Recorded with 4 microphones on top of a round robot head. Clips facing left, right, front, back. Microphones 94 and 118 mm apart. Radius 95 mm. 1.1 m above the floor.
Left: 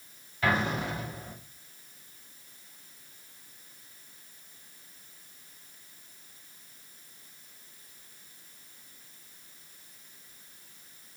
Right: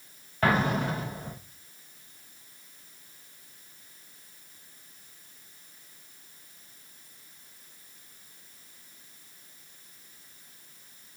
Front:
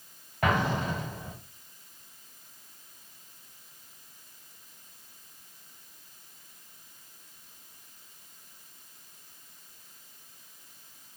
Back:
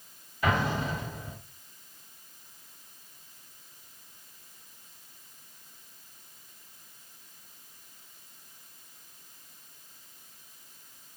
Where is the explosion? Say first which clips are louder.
Right 3 dB, front 1 dB; 50° right, 1.4 m.